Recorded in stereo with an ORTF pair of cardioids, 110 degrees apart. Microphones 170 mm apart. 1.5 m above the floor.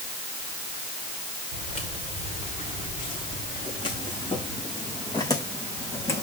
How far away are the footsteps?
About 6 m.